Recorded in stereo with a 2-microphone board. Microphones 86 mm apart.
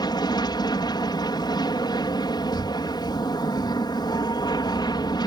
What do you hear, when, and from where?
0.0 s an aircraft: 55° left (ahead or behind)
2.5 s breathing: 60° left (ahead or behind)